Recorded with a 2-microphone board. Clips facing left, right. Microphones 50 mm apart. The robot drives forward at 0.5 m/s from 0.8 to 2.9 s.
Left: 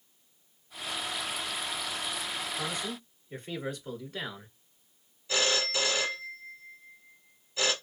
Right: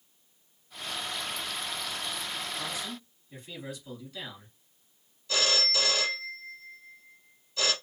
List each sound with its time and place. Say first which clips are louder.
2.6 s a man speaking: left 2 dB; 45° left (ahead or behind), 1.7 m
5.3 s a phone ringing: even; 25° left (ahead or behind), 1.9 m